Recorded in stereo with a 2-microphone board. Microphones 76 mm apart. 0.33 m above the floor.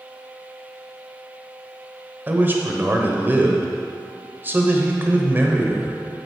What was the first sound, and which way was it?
A man speaking, 25° right (ahead or behind).